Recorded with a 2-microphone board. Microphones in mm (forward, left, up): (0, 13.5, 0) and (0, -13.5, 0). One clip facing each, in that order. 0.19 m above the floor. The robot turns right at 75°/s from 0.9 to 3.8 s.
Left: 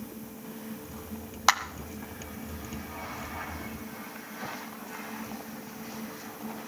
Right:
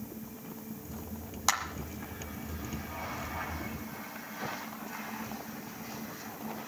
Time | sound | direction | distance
1.5 | a clap | 30° left (ahead or behind) | 1.1 m